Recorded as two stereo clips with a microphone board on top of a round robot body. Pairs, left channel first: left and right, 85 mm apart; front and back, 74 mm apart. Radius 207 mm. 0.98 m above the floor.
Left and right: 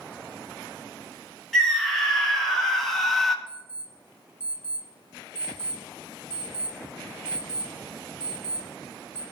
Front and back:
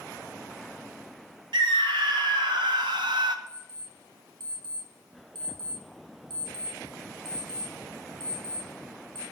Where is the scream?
175° left, 3.5 m.